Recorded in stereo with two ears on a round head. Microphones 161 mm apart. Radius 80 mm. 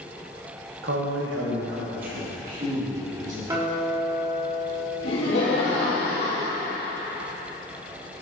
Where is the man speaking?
65° right (ahead or behind), 1.0 m; by 3.4 s 40° right (ahead or behind), 3.5 m.